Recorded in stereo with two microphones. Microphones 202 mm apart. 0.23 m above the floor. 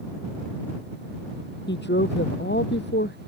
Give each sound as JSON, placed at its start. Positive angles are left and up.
{"t": 1.7, "sound": "a woman speaking", "side_deg": 60}